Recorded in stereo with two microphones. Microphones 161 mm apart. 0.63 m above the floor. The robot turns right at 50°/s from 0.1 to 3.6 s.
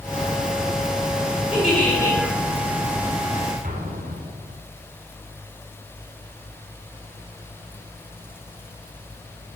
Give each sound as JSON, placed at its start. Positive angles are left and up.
{"t": 1.5, "sound": "a giggle", "azimuth_deg": -5, "distance_m": 2.5}
{"t": 3.6, "sound": "an explosion", "side_deg": -60, "distance_m": 1.2}